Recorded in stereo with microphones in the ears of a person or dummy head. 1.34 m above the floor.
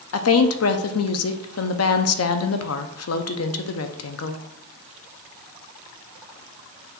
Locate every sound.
0.1 s a woman speaking: 70° left (ahead or behind), 0.5 m